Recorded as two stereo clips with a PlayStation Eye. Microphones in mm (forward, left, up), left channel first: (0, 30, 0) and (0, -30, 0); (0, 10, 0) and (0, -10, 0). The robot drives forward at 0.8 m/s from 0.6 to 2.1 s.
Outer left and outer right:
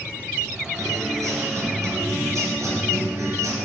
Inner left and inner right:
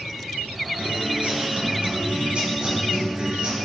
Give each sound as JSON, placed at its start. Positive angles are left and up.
{"t": 0.8, "sound": "a guitar", "side_deg": -80, "distance_m": 2.5}